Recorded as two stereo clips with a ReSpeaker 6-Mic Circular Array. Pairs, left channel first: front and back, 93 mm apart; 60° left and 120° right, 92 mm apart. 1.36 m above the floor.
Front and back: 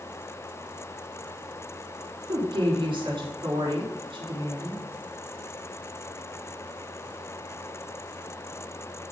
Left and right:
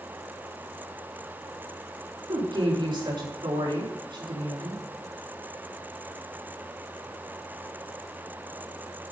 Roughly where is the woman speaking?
Behind right.